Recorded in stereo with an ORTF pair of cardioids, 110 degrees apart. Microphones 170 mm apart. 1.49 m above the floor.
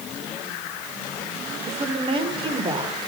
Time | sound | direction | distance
1.7 | a woman speaking | 35° right | 6.5 m